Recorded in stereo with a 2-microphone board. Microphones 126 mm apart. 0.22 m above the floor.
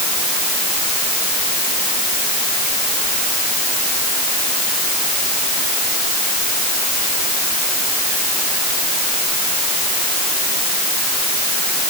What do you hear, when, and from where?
Only background noise.